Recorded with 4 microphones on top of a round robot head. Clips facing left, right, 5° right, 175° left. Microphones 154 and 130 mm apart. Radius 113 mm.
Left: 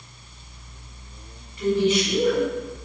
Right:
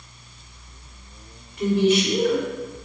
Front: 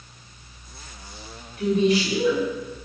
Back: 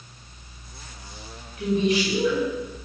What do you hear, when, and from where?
1.6 s a woman speaking: 65° right, 5 m